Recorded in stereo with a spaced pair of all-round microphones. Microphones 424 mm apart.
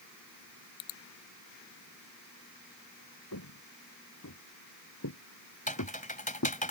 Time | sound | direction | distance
3.3 | footsteps | 50° left (ahead or behind) | ?
5.7 | typing on a keyboard | 20° left (ahead or behind) | ?